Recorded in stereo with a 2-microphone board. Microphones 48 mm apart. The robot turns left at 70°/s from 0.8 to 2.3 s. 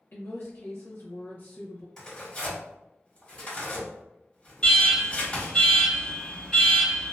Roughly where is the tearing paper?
Centre.